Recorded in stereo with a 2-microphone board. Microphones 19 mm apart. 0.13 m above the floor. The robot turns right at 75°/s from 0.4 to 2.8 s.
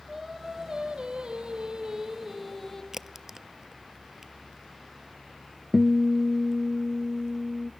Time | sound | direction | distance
0.1 | singing | 160° right | 4.5 m
2.9 | a crack | 20° right (ahead or behind) | 0.6 m
5.7 | a guitar | 10° right (ahead or behind) | 0.9 m